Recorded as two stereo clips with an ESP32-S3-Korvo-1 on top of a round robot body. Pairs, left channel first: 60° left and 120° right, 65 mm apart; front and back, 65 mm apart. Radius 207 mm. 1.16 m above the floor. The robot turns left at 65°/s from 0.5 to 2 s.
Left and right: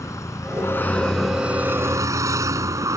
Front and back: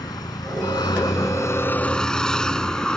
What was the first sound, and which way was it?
A vehicle, 15° left.